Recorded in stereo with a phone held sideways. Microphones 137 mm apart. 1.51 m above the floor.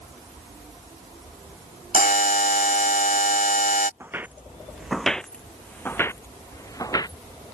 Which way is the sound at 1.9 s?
80° left.